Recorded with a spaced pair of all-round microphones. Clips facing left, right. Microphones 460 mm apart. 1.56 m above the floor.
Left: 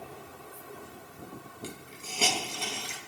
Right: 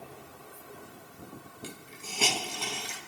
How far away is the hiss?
About 0.9 m.